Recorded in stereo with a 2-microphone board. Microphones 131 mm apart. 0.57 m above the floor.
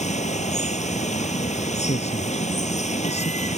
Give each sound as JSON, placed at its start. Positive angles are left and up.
{"t": 0.0, "sound": "running water", "side_deg": 60}
{"t": 1.7, "sound": "a man speaking", "side_deg": 55}